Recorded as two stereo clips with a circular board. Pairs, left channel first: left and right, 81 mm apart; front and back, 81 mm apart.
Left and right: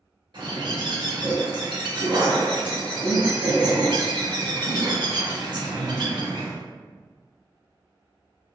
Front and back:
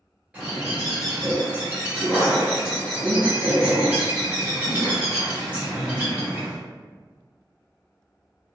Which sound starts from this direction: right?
A bird, at 0.3 s.